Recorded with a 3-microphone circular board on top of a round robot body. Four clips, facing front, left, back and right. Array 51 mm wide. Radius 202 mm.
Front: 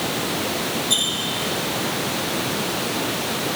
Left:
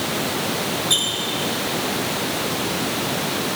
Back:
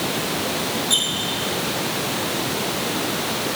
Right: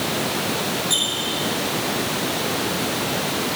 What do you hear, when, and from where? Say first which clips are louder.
0.9 s a squeak: left 1 dB, back 1 dB; 75° left, 5.5 m